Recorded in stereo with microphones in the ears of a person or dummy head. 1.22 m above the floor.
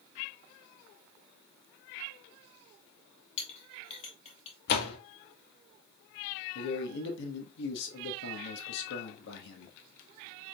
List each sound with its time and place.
3.4 s a clink: 35° left (ahead or behind), 1.7 m
4.7 s a door slam: 55° left (ahead or behind), 1.2 m
6.5 s a man speaking: 65° left (ahead or behind), 1.1 m